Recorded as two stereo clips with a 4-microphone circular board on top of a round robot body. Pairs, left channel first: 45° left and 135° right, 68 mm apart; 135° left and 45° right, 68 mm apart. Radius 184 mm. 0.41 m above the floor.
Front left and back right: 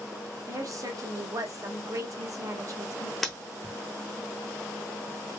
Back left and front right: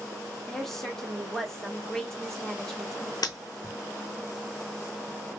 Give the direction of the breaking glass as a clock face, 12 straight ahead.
8 o'clock.